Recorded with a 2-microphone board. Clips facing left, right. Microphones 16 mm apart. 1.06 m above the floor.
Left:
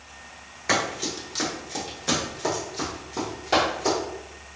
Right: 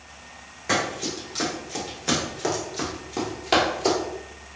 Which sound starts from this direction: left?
Running footsteps, at 0.7 s.